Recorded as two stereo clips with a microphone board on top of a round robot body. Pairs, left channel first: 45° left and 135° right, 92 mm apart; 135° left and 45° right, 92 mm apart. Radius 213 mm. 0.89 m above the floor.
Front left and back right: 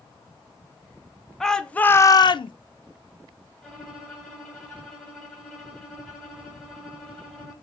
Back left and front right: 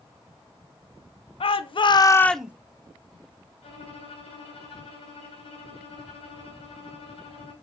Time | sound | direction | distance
1.4 | a shout | 130° left | 0.8 m
3.6 | a violin | 130° left | 2.0 m